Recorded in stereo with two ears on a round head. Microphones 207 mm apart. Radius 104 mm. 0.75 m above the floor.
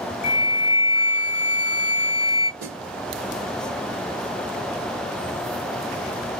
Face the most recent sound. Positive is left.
turn(degrees=-40)  # may be behind; listen again after turning